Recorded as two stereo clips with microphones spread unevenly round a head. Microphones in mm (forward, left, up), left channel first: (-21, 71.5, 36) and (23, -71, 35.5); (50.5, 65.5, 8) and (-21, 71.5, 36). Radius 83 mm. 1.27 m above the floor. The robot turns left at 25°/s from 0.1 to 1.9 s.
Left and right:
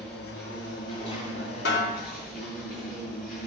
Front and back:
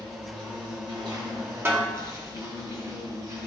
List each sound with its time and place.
0.0 s an insect: 170° right, 4 m; by 3.5 s 145° left, 4 m
1.6 s a snare drum: 120° left, 2 m; by 1.9 s 115° left, 2 m